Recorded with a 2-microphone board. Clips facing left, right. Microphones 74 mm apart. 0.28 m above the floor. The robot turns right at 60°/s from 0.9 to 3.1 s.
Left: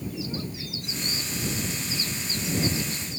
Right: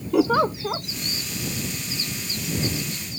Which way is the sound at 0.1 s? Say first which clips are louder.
Right 15 dB; 85° right.